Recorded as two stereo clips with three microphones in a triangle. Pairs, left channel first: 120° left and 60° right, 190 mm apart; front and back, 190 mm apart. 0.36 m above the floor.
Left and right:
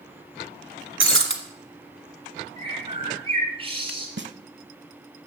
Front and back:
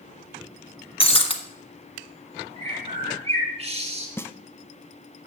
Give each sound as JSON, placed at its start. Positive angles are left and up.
{"t": 1.0, "sound": "breaking glass", "azimuth_deg": -60, "distance_m": 1.5}
{"t": 2.6, "sound": "a bird", "azimuth_deg": -120, "distance_m": 2.5}
{"t": 4.2, "sound": "a snare drum", "azimuth_deg": -80, "distance_m": 0.6}